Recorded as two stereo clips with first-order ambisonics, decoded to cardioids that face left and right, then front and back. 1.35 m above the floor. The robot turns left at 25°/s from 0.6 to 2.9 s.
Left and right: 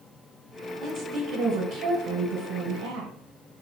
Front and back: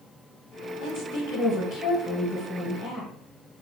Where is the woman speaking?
35° right, 1.4 m; by 3.1 s 90° right, 1.4 m.